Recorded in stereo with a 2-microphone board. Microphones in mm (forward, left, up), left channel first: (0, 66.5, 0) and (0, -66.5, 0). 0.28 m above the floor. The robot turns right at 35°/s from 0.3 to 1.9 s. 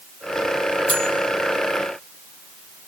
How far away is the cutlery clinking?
About 3 m.